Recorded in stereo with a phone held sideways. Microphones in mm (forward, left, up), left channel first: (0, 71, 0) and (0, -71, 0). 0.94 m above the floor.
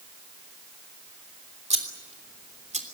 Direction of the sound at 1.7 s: 55° right (ahead or behind).